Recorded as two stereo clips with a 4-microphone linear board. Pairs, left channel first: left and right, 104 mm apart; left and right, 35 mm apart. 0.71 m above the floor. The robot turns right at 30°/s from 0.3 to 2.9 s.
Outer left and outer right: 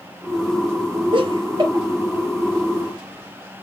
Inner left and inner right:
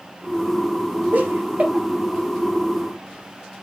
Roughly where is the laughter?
Right.